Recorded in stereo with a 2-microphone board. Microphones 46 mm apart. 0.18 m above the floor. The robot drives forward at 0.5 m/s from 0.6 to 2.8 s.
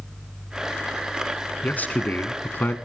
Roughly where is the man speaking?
Left.